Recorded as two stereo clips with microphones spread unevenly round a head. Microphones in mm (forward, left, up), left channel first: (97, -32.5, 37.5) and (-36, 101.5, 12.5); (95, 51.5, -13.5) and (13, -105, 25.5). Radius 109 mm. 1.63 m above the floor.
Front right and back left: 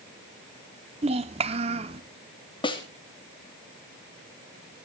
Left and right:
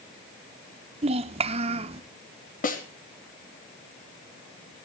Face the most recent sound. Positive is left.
turn(degrees=20)